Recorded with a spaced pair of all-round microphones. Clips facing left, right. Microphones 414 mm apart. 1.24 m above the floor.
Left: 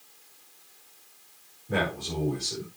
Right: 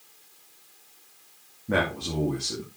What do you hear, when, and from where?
1.7 s a man speaking: 75° right (ahead or behind), 3 m